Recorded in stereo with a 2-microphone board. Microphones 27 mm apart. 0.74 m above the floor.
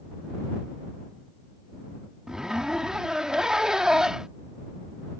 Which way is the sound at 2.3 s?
25° right (ahead or behind).